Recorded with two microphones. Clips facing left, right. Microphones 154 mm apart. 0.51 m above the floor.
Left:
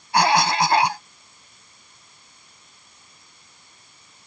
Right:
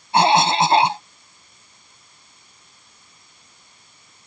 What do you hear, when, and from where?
0.1 s a cough: 25° right (ahead or behind)